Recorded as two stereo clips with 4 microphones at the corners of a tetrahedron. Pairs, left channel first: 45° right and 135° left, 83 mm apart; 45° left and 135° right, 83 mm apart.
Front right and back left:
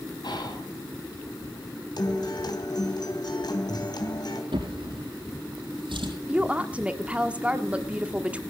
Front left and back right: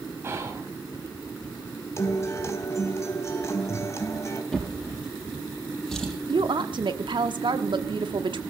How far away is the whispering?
About 5.5 m.